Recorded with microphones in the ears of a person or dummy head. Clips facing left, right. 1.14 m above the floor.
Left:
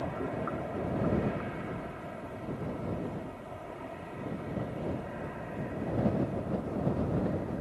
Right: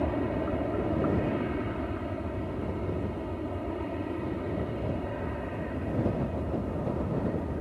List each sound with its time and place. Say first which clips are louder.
0.0 s an aircraft: right 6 dB; 50° right (ahead or behind)